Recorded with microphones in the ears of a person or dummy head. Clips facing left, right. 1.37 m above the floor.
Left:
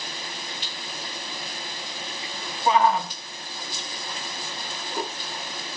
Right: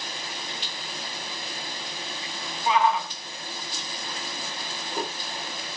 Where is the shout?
40° left (ahead or behind), 0.5 m.